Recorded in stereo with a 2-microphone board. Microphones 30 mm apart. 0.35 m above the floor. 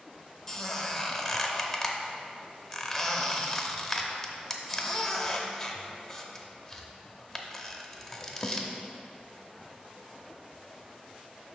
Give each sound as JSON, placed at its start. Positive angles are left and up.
{"t": 0.5, "sound": "a squeak", "side_deg": 10, "distance_m": 0.7}